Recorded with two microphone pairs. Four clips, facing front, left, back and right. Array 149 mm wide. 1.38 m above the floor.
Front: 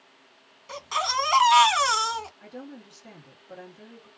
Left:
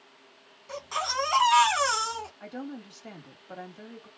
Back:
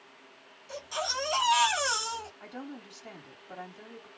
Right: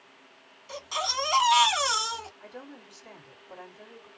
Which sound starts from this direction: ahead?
A baby crying, at 0.7 s.